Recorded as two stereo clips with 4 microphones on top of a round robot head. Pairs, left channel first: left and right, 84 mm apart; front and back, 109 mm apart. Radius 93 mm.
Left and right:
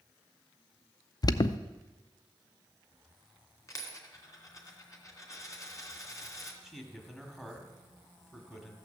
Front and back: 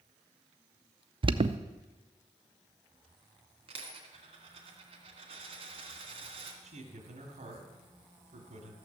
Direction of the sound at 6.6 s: 170° left.